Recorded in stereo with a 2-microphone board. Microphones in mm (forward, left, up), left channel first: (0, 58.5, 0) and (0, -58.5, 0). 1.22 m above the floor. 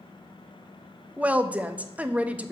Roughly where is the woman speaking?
Centre.